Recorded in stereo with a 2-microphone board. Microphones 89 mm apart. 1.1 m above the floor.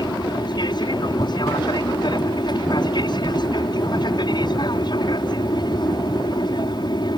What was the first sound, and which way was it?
An aircraft, 55° left (ahead or behind).